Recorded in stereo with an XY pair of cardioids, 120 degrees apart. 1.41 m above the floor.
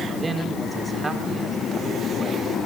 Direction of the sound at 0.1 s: 25° right.